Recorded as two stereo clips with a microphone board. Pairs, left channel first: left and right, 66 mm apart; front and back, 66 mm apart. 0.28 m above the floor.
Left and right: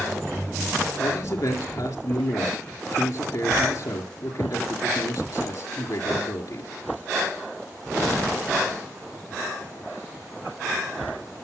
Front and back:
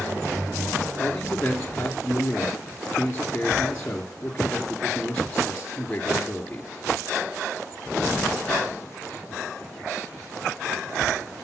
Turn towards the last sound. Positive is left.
turn(degrees=70)